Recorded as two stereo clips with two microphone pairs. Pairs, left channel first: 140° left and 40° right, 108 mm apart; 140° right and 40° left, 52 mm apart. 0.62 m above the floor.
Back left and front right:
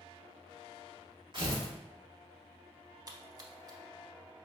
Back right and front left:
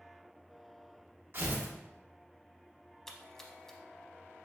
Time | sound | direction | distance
1.3 | tearing paper | straight ahead | 1.4 m
3.1 | a splash | 65° right | 0.5 m